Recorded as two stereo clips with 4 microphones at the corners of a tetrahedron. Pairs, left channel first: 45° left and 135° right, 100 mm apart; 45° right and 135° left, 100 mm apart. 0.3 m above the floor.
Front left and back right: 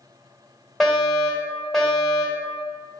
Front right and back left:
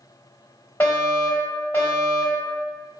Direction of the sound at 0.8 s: 45° right.